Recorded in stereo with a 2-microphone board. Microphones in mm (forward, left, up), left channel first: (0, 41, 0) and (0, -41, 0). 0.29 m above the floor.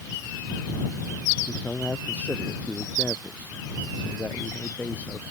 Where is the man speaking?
15° left (ahead or behind).